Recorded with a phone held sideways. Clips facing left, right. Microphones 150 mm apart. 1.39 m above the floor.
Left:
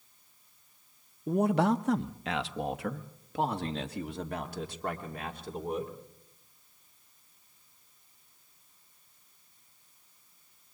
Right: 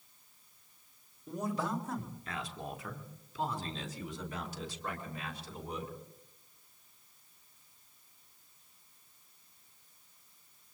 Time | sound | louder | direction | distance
1.3 | a man speaking | left 10 dB | 60° left (ahead or behind) | 1.0 m